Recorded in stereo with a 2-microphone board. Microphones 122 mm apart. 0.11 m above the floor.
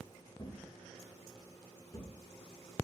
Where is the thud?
30° left (ahead or behind), 3.5 m.